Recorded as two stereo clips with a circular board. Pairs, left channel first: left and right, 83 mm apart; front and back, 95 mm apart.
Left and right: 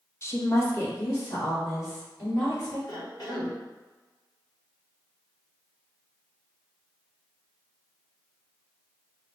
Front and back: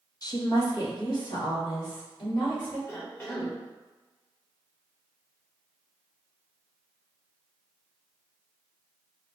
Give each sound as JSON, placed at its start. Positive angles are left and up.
{"t": 0.2, "sound": "a woman speaking", "azimuth_deg": 40, "distance_m": 0.6}
{"t": 2.9, "sound": "a cough", "azimuth_deg": 60, "distance_m": 1.5}